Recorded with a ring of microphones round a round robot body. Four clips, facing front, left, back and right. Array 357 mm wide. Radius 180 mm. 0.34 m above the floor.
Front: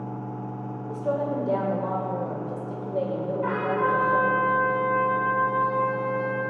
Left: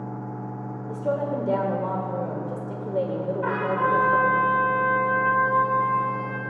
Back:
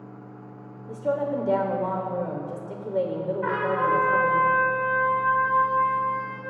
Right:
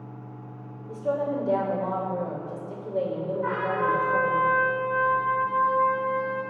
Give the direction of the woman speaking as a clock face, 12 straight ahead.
7 o'clock.